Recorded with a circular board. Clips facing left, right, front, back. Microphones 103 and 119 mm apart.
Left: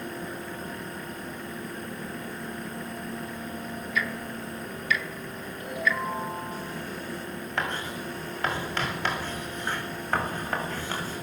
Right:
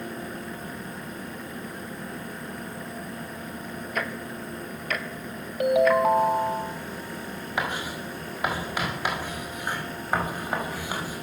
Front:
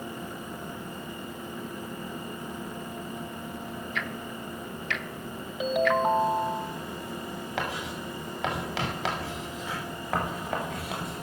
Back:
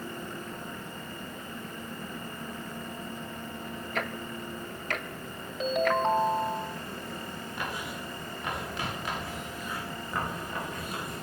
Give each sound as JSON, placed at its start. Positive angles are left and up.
{"t": 4.0, "sound": "ticking", "azimuth_deg": -130, "distance_m": 1.4}
{"t": 5.6, "sound": "a ringtone", "azimuth_deg": -80, "distance_m": 1.3}
{"t": 7.6, "sound": "writing", "azimuth_deg": -10, "distance_m": 6.0}